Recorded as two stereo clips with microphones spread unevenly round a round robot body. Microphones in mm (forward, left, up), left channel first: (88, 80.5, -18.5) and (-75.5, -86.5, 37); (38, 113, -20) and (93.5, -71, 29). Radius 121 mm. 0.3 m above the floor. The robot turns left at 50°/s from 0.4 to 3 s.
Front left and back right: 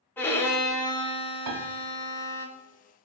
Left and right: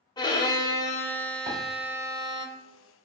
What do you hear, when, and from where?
0.2 s a violin: 100° left, 0.6 m; by 2.5 s 5° right, 0.6 m
1.5 s a piano: 145° right, 0.6 m; by 1.7 s 155° right, 0.6 m